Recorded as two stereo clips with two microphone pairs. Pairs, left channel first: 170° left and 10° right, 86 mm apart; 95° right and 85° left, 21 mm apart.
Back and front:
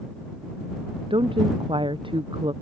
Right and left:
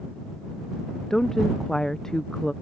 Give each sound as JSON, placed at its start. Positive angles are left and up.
{"t": 1.1, "sound": "a woman speaking", "azimuth_deg": -30}